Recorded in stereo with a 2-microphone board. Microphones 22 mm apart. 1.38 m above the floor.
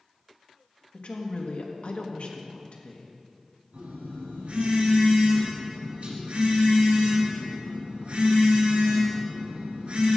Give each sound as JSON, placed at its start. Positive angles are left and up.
{"t": 0.9, "sound": "a woman speaking", "side_deg": 60, "distance_m": 1.4}
{"t": 3.7, "sound": "a phone buzzing", "side_deg": -75, "distance_m": 3.5}